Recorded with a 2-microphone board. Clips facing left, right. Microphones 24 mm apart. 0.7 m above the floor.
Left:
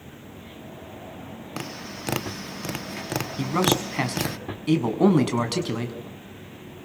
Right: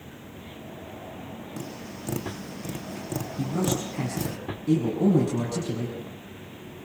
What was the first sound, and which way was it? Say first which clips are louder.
Tapping: left 6 dB; 60° left (ahead or behind).